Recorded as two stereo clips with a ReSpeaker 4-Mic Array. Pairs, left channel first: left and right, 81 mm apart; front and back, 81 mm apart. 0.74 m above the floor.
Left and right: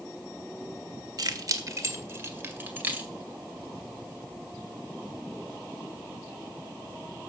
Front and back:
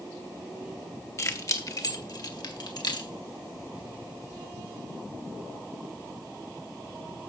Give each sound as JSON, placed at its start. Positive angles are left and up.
{"t": 1.2, "sound": "keys jangling", "azimuth_deg": -50, "distance_m": 1.6}